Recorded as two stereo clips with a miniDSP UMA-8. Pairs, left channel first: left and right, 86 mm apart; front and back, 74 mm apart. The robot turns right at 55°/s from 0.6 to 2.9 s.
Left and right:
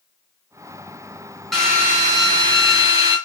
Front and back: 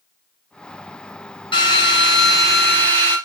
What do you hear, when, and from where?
1.5 s a drill: straight ahead, 1.5 m; by 3.2 s 75° left, 1.5 m